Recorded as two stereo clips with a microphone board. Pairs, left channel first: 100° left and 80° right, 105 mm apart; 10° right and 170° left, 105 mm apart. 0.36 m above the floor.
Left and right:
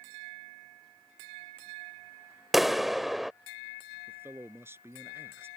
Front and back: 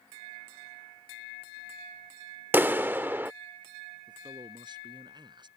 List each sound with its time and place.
2.5 s a clap: 165° right
4.1 s a man speaking: 145° right